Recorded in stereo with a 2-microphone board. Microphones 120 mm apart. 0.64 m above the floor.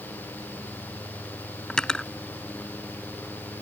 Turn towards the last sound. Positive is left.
turn(degrees=5)  # may be behind; listen again after turning